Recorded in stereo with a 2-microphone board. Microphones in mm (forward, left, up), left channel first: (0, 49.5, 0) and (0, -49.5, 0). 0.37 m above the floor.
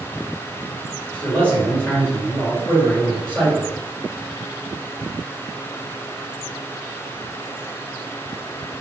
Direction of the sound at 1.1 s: 15° left (ahead or behind).